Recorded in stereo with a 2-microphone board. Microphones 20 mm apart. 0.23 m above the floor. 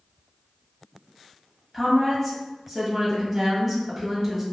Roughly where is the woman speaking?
Centre.